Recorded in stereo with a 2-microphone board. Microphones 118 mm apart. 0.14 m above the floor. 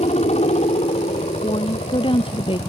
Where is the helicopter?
70° left (ahead or behind); by 2.7 s 75° left (ahead or behind).